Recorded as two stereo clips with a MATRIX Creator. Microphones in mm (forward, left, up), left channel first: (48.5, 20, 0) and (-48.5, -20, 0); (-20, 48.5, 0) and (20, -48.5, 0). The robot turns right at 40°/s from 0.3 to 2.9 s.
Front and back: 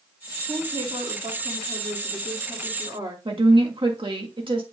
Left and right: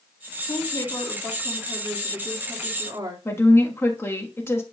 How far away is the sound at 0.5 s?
About 2 m.